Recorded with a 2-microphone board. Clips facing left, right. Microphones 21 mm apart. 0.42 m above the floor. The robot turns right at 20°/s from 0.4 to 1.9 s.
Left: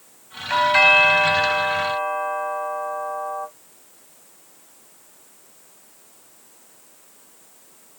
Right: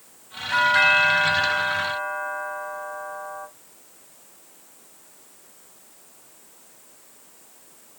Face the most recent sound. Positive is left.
turn(degrees=55)  # may be behind; listen again after turning